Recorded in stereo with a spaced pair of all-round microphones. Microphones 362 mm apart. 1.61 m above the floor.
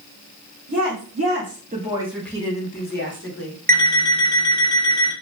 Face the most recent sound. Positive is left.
turn(degrees=-25)  # may be behind; listen again after turning